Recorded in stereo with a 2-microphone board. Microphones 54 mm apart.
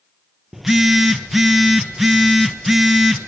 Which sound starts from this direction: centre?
A phone buzzing, at 0.5 s.